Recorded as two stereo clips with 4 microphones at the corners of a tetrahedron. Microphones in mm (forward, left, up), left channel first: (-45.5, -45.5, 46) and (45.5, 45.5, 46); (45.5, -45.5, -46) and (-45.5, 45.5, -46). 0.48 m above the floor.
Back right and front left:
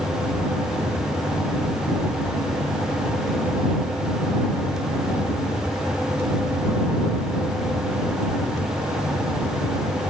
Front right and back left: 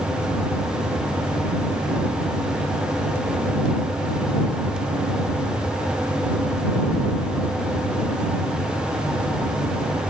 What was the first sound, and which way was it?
Only background noise.